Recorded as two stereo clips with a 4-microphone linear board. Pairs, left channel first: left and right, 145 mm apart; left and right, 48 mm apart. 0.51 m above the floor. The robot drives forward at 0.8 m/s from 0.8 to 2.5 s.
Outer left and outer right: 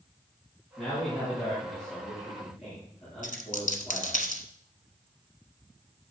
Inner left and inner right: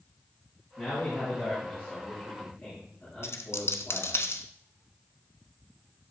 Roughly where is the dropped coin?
Left.